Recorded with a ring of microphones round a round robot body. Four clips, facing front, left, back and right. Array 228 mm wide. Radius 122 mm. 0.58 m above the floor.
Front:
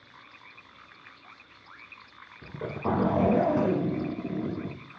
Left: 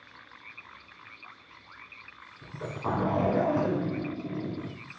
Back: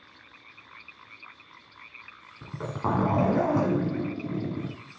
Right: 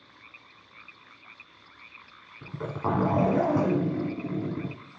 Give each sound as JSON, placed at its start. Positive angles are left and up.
{"t": 2.4, "sound": "a zipper", "azimuth_deg": -150, "distance_m": 2.5}